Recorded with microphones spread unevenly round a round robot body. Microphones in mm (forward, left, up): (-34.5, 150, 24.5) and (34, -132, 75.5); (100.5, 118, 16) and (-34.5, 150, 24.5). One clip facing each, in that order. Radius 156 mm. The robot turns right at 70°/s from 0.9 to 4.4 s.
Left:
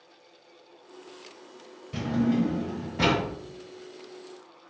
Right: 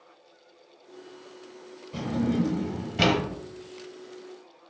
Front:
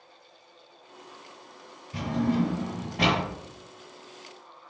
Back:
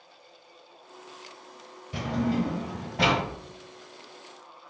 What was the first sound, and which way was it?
A drawer, 165° left.